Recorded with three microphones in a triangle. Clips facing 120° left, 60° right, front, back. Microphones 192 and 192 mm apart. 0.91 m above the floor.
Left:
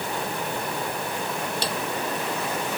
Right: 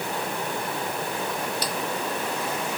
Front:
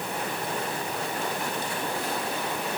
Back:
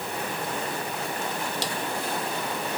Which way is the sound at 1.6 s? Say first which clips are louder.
Left 1 dB, back 1 dB; straight behind.